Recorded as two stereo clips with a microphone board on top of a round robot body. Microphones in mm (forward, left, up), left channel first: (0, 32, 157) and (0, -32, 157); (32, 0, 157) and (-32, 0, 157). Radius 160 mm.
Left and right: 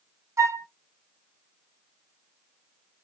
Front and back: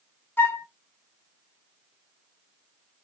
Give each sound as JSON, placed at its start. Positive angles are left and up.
{"t": 0.4, "sound": "a flute", "azimuth_deg": -50, "distance_m": 0.9}